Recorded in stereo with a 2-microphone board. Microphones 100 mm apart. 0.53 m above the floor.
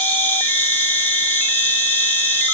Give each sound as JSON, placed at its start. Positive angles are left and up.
{"t": 0.0, "sound": "an insect", "side_deg": 15, "distance_m": 4.5}